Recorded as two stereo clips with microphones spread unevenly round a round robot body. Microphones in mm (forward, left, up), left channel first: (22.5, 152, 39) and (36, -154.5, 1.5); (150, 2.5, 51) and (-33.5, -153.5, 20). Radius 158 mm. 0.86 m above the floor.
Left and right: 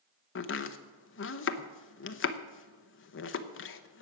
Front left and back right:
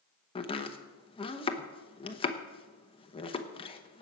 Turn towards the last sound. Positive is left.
turn(degrees=100)